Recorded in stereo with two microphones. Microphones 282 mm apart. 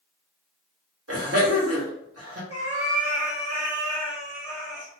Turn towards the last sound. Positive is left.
turn(degrees=-55)  # may be behind; listen again after turning